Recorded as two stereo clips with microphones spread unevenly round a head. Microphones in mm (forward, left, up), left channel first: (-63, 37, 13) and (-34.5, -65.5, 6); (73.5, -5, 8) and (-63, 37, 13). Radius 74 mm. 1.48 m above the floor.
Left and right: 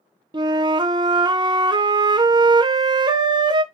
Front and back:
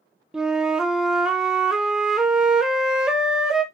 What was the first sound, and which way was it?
A flute, 115° right.